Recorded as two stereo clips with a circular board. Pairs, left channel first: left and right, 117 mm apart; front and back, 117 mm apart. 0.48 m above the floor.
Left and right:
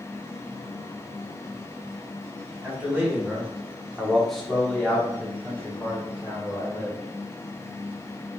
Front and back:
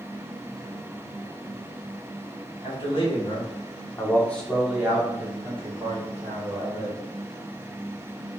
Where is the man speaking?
15° right, 1.6 m; by 7.0 s 160° left, 2.0 m.